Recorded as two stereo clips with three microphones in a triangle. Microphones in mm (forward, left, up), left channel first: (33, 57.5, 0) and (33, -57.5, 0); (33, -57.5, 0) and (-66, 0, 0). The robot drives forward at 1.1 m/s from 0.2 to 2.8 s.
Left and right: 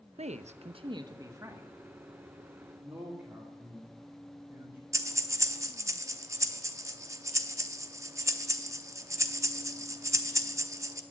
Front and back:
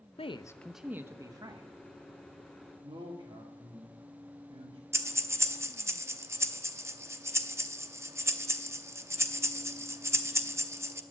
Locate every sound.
0.2 s a man speaking: 65° right, 0.6 m; by 1.7 s 160° right, 1.5 m
2.8 s a man speaking: 165° right, 1.9 m
4.9 s breathing: 145° right, 0.7 m